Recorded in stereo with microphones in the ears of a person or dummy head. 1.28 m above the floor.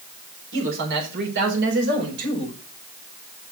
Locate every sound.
0.5 s a man speaking: 75° right (ahead or behind), 4 m; by 2.6 s 70° right (ahead or behind), 5 m